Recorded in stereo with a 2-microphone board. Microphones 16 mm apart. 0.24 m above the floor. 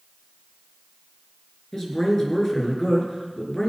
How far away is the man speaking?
About 4 m.